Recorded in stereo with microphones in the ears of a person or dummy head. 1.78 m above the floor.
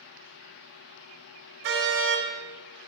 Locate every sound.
1.6 s a car horn: 60° right (ahead or behind), 4 m